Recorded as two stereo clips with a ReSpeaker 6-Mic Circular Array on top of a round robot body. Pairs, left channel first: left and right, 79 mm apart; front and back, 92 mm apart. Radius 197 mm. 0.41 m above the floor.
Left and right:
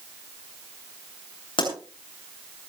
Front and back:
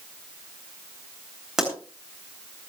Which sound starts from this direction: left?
A pop, at 1.6 s.